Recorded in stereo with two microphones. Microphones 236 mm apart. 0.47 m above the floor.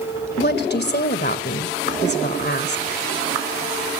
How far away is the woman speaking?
About 2 m.